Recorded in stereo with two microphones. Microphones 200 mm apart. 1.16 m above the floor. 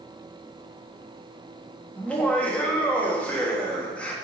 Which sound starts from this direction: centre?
Laughter, at 2.0 s.